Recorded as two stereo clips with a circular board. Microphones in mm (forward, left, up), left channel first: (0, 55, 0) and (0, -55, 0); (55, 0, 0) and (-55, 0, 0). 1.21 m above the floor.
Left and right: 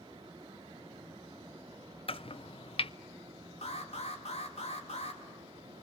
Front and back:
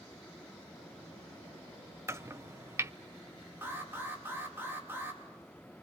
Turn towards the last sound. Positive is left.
turn(degrees=110)